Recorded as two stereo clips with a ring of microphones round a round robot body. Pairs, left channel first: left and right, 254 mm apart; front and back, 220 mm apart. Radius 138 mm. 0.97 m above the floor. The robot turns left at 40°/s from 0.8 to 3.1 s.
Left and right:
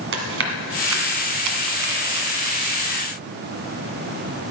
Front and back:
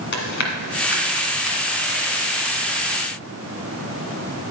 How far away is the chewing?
About 1.6 m.